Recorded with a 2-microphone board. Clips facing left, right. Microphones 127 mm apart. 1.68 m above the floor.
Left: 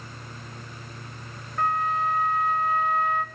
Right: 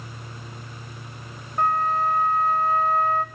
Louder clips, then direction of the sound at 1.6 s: Right 3 dB; 35° right (ahead or behind).